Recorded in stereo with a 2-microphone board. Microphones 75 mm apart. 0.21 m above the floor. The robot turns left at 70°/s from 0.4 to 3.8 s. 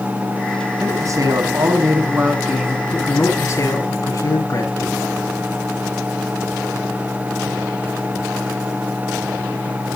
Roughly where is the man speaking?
Ahead right.